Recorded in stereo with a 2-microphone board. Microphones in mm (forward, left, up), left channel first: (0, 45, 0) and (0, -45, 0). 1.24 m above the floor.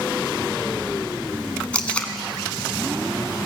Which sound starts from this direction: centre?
Tape being pulled, at 1.7 s.